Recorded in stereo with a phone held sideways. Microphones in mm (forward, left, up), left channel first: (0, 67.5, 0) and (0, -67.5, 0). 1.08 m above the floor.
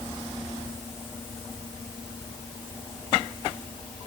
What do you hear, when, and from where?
Only background noise.